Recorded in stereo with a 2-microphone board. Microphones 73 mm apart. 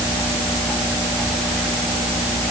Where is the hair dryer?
I don't hear a hair dryer.